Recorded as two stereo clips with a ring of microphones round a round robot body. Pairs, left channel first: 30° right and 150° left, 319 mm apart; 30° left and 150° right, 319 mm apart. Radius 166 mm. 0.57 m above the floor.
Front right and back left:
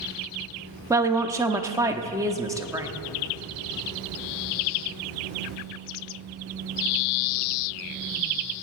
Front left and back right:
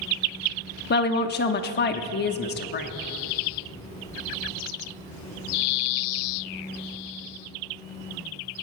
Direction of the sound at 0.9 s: 75° left.